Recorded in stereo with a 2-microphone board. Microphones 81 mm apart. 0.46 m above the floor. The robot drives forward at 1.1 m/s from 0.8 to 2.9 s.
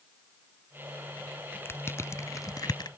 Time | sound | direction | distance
1.6 | crushing | 30° left (ahead or behind) | ?